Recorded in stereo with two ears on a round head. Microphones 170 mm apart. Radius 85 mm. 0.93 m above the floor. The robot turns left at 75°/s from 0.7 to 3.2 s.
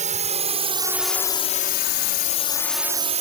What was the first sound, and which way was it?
A drone, 40° right (ahead or behind).